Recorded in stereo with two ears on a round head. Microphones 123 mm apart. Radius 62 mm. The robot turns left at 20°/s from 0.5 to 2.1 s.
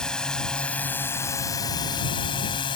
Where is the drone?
175° left; by 2.8 s 140° left.